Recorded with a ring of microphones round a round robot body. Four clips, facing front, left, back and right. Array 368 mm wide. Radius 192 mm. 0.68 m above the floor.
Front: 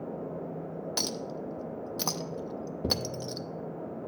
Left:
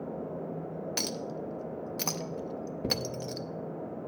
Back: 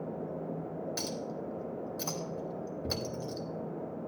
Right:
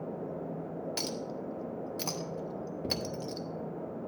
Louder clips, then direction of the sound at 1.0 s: Left 1 dB, front 2 dB; 25° left.